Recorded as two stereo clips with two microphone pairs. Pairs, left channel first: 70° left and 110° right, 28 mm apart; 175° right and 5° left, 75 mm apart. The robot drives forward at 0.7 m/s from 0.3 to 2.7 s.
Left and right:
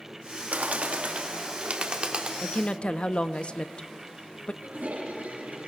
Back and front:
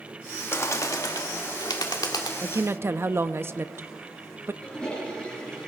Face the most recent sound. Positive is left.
turn(degrees=-95)